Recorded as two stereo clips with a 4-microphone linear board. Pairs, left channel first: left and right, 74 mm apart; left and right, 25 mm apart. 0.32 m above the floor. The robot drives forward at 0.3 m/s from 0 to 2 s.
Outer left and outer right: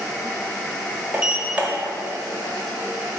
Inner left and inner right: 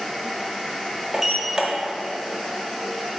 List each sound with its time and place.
1.1 s a sliding door: 20° right (ahead or behind), 1.1 m